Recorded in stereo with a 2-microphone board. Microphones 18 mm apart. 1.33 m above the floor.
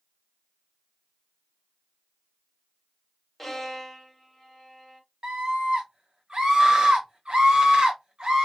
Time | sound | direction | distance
3.4 | a violin | 10° left (ahead or behind) | 1.2 m
5.2 | a scream | 60° right (ahead or behind) | 1.2 m